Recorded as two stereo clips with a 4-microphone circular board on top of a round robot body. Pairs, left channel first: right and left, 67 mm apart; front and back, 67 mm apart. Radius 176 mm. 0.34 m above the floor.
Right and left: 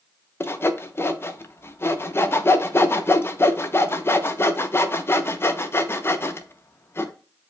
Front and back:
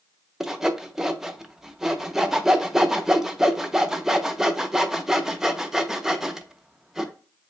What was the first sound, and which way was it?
Sawing, 100° right.